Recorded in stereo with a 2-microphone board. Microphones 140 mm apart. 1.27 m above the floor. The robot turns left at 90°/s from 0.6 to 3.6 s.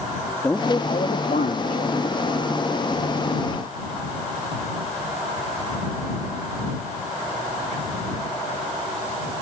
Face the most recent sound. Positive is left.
turn(degrees=-105)